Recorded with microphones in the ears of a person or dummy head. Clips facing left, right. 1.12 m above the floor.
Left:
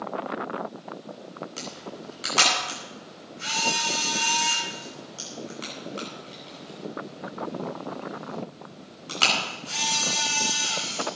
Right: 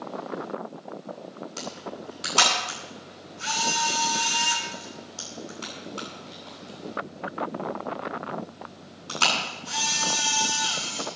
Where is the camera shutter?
35° left (ahead or behind), 9.5 m.